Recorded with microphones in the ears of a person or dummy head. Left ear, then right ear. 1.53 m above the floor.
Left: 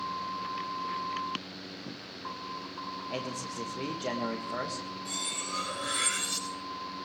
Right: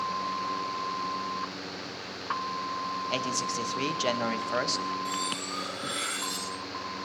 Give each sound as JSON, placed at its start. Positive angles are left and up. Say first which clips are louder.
{"t": 3.1, "sound": "a man speaking", "louder": "right 7 dB", "side_deg": -45, "distance_m": 1.6}
{"t": 5.0, "sound": "cutlery clinking", "louder": "right 3 dB", "side_deg": -5, "distance_m": 8.0}